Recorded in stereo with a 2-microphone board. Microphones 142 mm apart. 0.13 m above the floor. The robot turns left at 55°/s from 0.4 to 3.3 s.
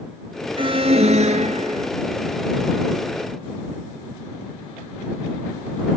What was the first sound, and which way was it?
An alarm, 50° right.